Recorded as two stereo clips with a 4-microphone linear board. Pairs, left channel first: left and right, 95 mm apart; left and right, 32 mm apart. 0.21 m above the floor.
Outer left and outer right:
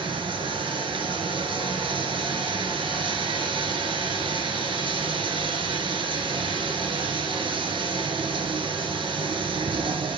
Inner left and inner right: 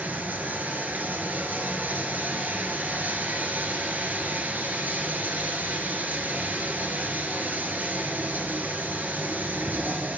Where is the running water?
70° right (ahead or behind), 1.0 m.